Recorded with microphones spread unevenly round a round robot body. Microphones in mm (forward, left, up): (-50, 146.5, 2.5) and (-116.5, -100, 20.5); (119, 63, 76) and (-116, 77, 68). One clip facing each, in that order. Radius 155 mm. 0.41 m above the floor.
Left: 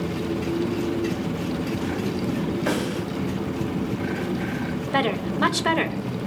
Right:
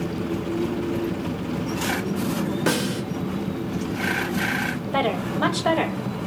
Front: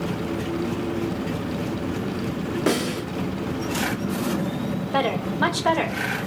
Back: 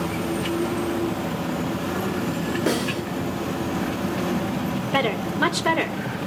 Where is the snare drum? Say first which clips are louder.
Right 1 dB, front 3 dB; 95° right, 1.7 m.